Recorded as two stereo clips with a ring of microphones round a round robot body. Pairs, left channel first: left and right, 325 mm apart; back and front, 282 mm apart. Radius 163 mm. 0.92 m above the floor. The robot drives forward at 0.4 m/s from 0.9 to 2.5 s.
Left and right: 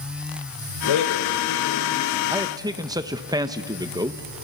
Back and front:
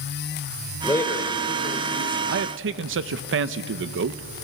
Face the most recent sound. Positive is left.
turn(degrees=-15)